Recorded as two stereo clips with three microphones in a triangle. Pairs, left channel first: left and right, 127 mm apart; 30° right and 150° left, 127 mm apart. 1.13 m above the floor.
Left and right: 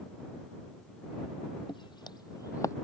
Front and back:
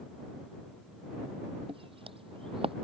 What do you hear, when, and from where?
1.7 s footsteps: 125° left; by 2.8 s 145° left